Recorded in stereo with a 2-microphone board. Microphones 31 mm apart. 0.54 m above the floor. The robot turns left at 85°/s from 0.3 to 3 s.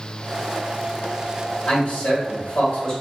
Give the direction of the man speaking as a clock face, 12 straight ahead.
7 o'clock.